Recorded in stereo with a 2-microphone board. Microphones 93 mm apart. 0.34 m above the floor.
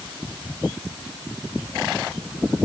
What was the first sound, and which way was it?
Only background noise.